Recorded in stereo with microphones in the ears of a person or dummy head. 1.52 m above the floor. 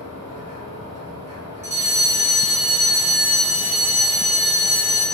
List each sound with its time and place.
0.0 s a machine running: 45° right (ahead or behind), 0.7 m
1.6 s a fire alarm: 15° right (ahead or behind), 0.7 m